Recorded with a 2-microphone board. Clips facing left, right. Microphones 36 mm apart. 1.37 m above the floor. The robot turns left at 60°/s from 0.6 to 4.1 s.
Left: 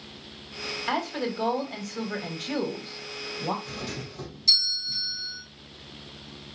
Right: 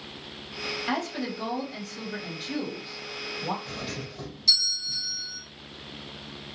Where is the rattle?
I don't hear a rattle.